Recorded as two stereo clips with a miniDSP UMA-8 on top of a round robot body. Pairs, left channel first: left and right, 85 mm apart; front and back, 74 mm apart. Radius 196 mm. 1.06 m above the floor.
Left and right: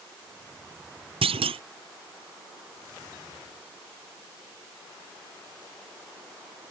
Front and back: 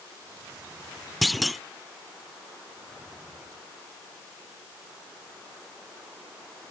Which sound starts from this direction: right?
A clunk, at 1.2 s.